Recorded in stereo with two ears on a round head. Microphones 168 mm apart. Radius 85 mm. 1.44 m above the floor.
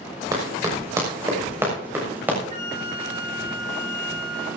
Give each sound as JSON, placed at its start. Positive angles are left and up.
{"t": 0.3, "sound": "running footsteps", "side_deg": -20, "distance_m": 6.0}
{"t": 2.5, "sound": "a flute", "side_deg": -35, "distance_m": 3.0}